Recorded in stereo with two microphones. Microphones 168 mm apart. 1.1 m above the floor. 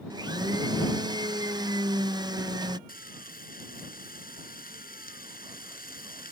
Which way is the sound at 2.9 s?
60° left (ahead or behind).